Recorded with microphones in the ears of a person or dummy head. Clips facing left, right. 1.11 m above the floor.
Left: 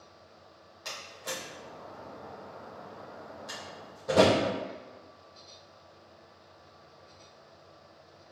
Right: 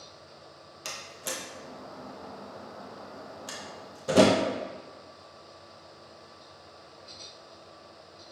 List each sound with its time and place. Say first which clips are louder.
0.8 s a door slam: right 1 dB; 35° right (ahead or behind), 0.8 m